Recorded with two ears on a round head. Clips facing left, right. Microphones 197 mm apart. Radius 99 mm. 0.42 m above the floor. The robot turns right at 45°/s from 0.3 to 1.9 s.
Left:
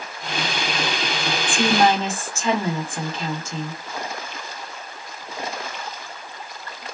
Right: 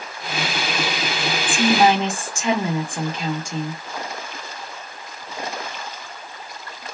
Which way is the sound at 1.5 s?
5° right (ahead or behind).